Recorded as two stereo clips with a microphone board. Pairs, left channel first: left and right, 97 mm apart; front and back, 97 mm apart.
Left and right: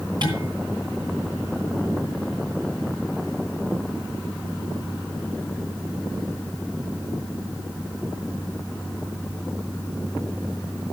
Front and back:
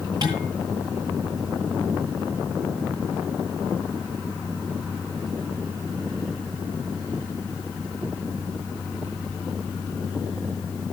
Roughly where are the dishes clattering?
Behind right.